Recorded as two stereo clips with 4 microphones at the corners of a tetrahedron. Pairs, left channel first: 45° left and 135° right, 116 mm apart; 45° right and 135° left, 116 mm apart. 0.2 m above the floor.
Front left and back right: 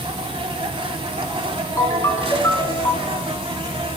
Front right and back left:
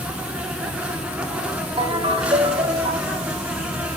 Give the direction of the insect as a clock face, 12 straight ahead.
5 o'clock.